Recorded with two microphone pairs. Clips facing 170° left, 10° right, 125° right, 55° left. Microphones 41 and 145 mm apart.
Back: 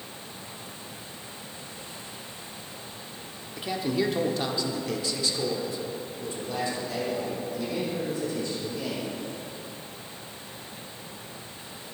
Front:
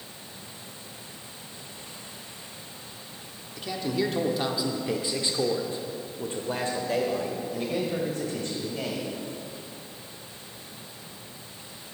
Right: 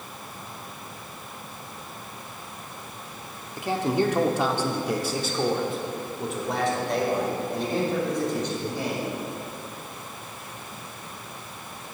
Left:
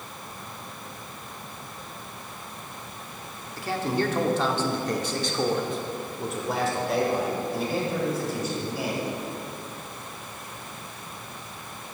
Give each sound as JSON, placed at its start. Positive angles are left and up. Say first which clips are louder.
{"t": 3.6, "sound": "a man speaking", "louder": "back 1 dB, right 3 dB", "azimuth_deg": -155, "distance_m": 1.1}